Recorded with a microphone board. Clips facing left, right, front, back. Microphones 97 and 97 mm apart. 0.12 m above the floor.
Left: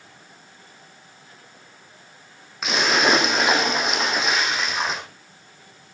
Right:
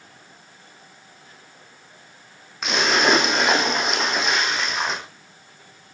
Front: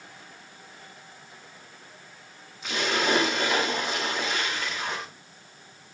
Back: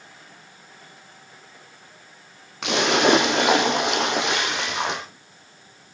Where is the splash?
Straight behind, 3.5 m.